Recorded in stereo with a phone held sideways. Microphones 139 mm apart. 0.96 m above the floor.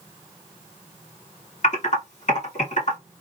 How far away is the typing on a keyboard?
About 1.9 m.